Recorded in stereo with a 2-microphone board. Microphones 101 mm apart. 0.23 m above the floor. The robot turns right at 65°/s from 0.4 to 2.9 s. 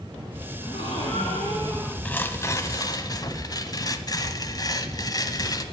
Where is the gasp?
65° left, 4.5 m; by 1.9 s 150° left, 4.5 m.